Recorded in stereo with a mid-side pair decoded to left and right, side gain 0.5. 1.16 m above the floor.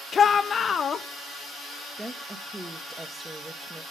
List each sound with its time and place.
0.1 s a shout: 40° left, 1.0 m
2.0 s a woman speaking: 10° right, 1.2 m